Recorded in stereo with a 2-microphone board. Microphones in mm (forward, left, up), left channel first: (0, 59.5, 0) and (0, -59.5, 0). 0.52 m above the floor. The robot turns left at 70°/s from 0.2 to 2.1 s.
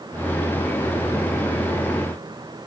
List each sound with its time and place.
Only background noise.